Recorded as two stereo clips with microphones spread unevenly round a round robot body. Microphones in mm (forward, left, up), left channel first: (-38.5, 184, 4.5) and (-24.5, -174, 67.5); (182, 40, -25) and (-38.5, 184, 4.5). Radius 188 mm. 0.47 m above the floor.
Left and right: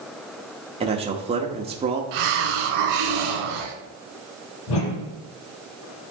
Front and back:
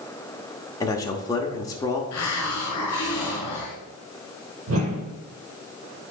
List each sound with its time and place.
0.8 s a man speaking: 15° right, 0.8 m
2.1 s a hiss: 85° right, 2.0 m
4.7 s a whoosh: 115° left, 3 m